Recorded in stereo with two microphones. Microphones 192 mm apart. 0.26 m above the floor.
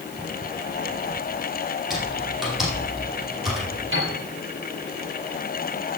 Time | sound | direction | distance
1.9 | typing on a keyboard | centre (ahead or behind) | 5.5 m
3.9 | a piano | 80° right | 5.5 m